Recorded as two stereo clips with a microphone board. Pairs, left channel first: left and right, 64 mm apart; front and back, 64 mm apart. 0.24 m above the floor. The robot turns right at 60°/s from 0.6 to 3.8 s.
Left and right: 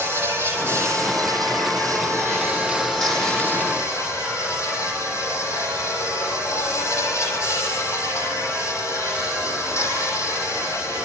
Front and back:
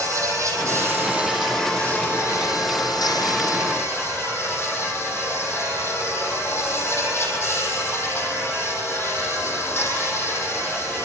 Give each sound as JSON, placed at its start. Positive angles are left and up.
{"t": 0.0, "sound": "an insect", "azimuth_deg": -135, "distance_m": 6.0}